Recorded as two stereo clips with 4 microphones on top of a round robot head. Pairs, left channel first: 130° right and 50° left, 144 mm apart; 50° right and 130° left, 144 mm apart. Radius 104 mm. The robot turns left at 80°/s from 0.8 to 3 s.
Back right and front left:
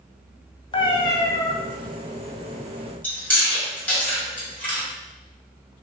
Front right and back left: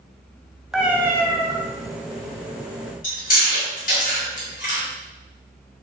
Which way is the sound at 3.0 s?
55° right.